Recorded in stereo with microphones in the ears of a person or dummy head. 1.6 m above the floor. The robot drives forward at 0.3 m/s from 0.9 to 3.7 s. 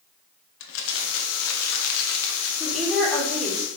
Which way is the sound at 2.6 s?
Centre (ahead or behind).